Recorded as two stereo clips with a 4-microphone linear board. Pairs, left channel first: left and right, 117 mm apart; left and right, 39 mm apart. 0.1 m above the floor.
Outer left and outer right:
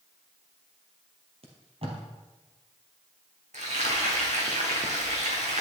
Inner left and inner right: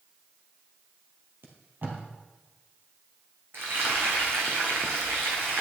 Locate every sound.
1.4 s tape being pulled: 55° right (ahead or behind), 2.5 m
3.5 s frying: 75° right (ahead or behind), 2.5 m